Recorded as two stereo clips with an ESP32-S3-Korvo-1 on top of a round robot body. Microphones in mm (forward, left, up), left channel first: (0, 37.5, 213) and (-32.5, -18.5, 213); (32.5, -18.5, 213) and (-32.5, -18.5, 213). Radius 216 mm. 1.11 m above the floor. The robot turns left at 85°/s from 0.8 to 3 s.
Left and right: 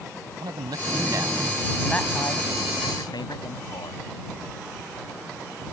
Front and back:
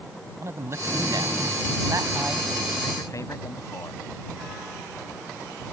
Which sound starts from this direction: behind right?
A man speaking, at 0.4 s.